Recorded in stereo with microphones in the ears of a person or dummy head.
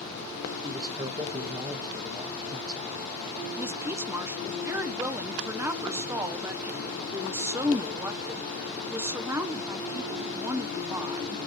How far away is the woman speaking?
About 0.6 m.